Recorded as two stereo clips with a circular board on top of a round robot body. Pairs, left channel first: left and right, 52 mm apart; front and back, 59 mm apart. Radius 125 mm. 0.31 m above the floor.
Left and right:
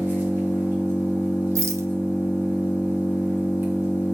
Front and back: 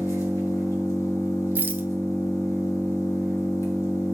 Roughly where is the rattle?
Behind right.